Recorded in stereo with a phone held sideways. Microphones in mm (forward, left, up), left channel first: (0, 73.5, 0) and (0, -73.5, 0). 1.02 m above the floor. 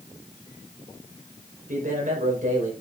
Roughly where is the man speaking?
Right.